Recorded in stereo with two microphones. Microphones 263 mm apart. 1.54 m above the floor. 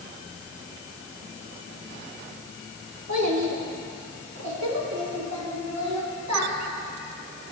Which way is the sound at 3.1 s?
75° right (ahead or behind).